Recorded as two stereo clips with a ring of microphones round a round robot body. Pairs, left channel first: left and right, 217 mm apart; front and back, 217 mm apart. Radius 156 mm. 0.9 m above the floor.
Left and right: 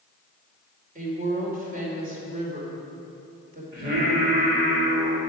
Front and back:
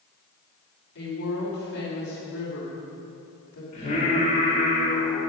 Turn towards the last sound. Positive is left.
turn(degrees=-65)